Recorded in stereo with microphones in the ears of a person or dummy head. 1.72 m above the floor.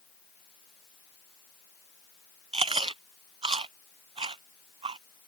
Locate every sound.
2.5 s chewing: 25° right (ahead or behind)